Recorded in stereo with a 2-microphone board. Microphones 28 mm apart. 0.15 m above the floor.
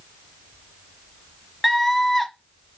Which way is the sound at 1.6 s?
5° left (ahead or behind).